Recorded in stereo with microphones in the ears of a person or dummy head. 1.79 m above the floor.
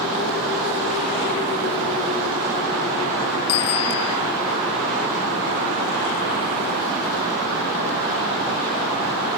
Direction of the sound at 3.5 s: 85° left.